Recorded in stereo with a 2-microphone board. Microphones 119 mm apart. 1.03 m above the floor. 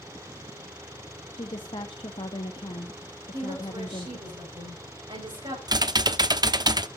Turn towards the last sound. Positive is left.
turn(degrees=-35)  # may be behind; listen again after turning